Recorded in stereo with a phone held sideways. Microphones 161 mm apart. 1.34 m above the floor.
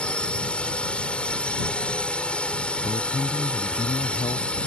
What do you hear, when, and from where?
0.0 s a drone: 5° left (ahead or behind)
2.8 s a man speaking: 40° left (ahead or behind)